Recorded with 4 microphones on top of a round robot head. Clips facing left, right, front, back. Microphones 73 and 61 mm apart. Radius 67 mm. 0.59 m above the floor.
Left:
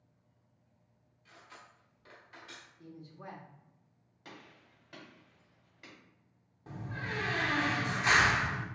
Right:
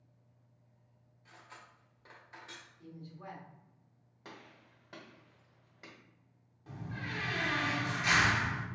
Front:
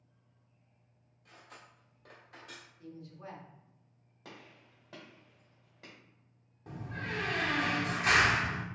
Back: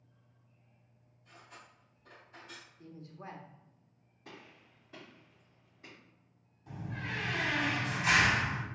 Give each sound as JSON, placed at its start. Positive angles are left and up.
{"t": 1.2, "sound": "cutlery clinking", "azimuth_deg": -25, "distance_m": 1.5}
{"t": 2.8, "sound": "a woman speaking", "azimuth_deg": 145, "distance_m": 1.2}
{"t": 4.2, "sound": "a gunshot", "azimuth_deg": -30, "distance_m": 1.7}
{"t": 6.7, "sound": "a door slam", "azimuth_deg": 30, "distance_m": 1.0}